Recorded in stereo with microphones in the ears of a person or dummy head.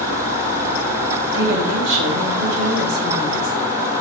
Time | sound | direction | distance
1.3 | a woman speaking | 75° right (ahead or behind) | 2 m